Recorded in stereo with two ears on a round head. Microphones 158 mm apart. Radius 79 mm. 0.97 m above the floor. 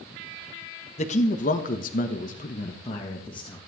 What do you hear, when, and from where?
1.0 s a man speaking: 40° left (ahead or behind), 1.3 m; by 3.6 s 25° left (ahead or behind), 1.6 m